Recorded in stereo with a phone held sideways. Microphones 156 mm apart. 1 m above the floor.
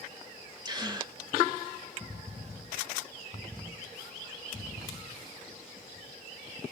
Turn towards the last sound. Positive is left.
turn(degrees=-30)  # may be behind; listen again after turning